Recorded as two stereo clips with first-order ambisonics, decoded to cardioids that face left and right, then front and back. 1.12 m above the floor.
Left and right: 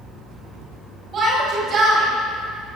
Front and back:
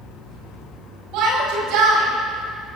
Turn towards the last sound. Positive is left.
turn(degrees=-145)